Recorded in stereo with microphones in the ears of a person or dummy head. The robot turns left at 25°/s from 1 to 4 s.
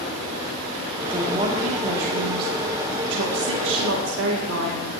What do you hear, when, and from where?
1.1 s a woman speaking: 25° right, 1.7 m; by 5.0 s 95° right, 1.7 m